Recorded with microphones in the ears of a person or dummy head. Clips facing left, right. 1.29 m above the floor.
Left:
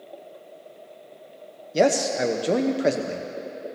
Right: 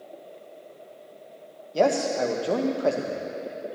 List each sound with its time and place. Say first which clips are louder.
1.7 s a man speaking: left 2 dB; 20° left (ahead or behind), 0.9 m